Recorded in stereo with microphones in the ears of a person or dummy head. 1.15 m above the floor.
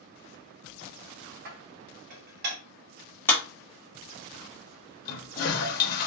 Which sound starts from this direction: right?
Dishes clattering, at 1.4 s.